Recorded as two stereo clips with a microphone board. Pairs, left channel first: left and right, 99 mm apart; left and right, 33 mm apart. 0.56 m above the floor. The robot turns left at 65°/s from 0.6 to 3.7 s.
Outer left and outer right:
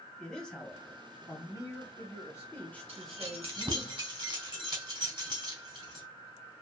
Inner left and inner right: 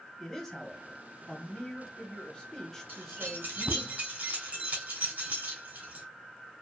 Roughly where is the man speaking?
Behind.